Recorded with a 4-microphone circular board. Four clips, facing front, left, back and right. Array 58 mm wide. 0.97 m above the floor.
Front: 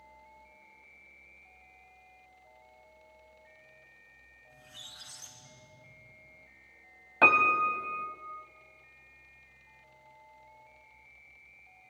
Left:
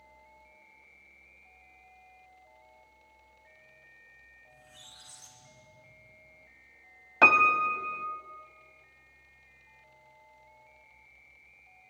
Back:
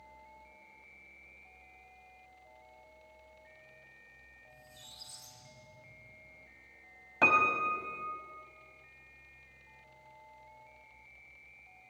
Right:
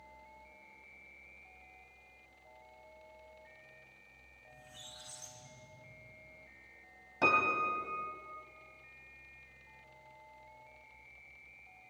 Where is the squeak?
10° left, 2 m.